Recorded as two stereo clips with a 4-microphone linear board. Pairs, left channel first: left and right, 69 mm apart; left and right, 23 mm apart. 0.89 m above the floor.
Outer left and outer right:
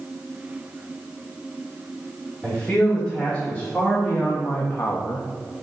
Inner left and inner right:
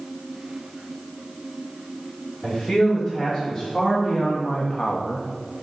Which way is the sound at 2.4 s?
5° left (ahead or behind).